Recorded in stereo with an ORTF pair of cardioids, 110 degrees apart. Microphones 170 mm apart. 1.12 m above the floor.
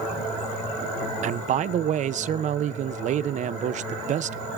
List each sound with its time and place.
1.2 s a man speaking: 50° right, 0.7 m